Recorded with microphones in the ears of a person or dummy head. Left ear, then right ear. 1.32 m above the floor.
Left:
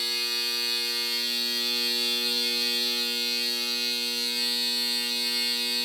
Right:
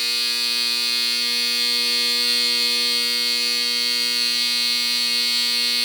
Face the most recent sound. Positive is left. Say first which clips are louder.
# right 6 dB
turn(degrees=-60)  # may be behind; listen again after turning